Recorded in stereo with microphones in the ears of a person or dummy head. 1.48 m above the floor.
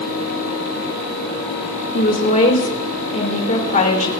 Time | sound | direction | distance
1.9 | a woman speaking | 35° left (ahead or behind) | 2 m